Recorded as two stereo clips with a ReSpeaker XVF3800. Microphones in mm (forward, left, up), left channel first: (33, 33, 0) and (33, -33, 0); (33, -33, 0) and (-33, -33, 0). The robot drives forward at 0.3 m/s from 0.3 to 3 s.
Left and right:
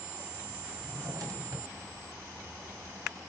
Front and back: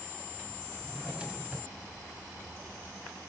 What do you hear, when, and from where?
0.8 s a drawer: 105° right, 2 m; by 3.2 s 120° right, 2.5 m